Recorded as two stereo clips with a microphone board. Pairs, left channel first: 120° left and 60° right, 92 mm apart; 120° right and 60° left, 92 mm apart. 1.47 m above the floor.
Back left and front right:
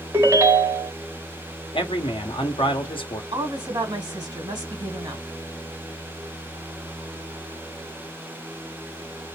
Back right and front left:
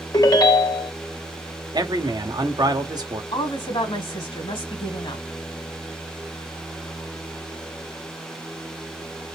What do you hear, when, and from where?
0.1 s a ringtone: 100° right, 1.2 m
1.7 s a man speaking: 100° left, 1.2 m
3.3 s a woman speaking: 105° right, 2 m